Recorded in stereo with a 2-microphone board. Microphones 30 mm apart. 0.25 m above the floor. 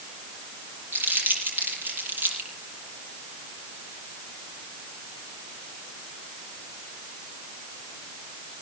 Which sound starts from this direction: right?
Crumpling, at 0.9 s.